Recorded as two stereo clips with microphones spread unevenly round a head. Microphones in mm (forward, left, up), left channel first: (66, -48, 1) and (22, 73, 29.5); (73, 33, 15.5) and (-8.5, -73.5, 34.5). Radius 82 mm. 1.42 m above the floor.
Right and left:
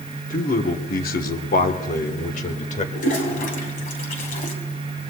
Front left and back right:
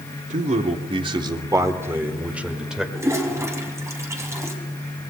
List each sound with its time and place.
0.3 s a man speaking: 95° right, 1.1 m; by 2.9 s 40° right, 1.9 m
3.0 s a toilet flushing: 55° right, 3 m